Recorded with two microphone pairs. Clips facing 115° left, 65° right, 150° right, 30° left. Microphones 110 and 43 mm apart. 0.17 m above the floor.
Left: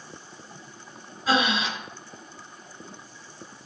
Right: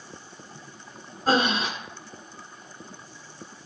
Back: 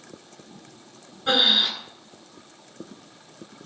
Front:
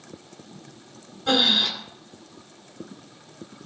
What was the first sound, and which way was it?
Breathing, 85° right.